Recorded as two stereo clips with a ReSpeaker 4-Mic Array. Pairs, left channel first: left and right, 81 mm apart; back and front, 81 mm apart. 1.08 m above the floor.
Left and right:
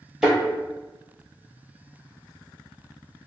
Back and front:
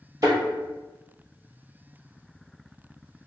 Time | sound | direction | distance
0.2 | a thud | 15° right | 1.3 m